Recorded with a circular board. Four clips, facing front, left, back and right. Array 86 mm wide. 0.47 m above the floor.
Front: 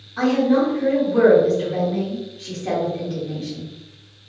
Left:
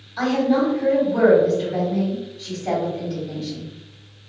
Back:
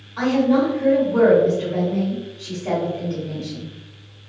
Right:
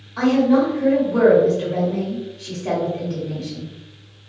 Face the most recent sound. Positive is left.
turn(degrees=-95)